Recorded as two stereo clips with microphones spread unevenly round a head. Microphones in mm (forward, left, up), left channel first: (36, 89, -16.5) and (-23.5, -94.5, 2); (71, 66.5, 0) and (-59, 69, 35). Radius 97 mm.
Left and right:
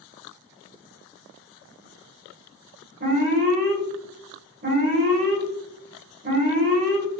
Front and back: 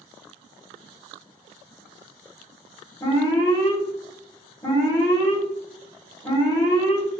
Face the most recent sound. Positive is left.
turn(degrees=-65)